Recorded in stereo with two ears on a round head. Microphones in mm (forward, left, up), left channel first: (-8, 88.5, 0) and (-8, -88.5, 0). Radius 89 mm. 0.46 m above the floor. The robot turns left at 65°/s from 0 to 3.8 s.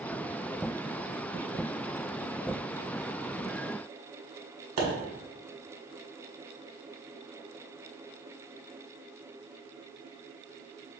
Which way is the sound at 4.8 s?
85° right.